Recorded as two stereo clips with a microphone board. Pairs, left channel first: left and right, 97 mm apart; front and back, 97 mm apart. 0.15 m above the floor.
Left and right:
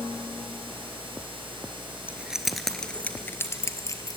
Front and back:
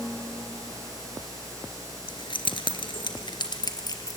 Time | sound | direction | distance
2.1 | keys jangling | 15° right | 1.5 m